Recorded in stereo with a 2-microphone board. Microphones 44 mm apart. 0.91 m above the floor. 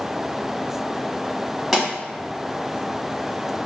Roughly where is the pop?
Centre.